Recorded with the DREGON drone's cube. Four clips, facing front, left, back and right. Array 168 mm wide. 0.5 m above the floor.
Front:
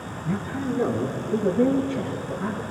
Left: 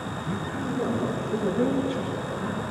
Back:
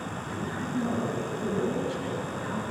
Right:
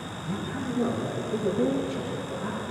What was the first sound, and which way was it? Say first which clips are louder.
A man speaking: even, front 9 dB; 5° left.